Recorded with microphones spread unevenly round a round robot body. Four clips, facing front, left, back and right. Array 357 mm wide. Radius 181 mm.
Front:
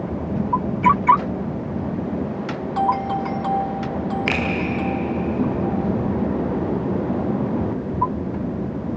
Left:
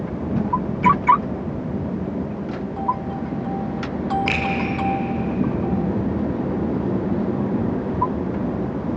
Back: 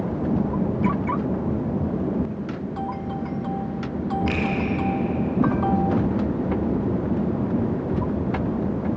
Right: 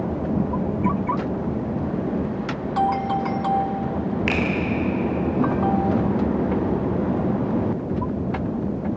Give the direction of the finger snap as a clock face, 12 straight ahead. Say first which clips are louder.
Right 1 dB, front 2 dB; 12 o'clock.